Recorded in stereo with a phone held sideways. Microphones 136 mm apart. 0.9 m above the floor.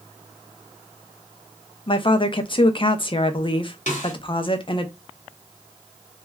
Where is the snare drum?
65° left (ahead or behind), 1.2 m.